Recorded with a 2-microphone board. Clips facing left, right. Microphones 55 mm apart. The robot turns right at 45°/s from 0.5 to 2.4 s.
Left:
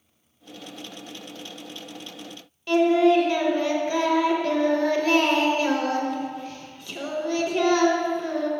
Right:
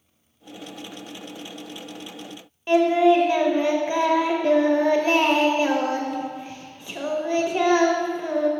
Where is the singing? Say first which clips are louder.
Right 1 dB; 25° right (ahead or behind), 0.6 m.